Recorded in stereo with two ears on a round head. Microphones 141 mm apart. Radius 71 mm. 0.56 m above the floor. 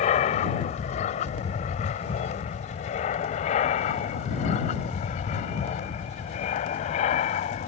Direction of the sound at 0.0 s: 45° left (ahead or behind).